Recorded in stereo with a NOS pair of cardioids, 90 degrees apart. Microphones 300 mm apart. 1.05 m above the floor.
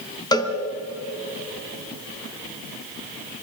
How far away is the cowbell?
About 3 m.